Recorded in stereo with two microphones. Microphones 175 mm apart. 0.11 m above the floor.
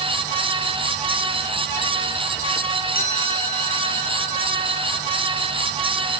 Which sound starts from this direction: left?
A chime, at 3.0 s.